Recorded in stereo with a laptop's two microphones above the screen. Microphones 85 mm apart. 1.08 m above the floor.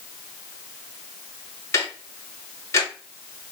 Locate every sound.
1.7 s ticking: 35° left (ahead or behind), 1.7 m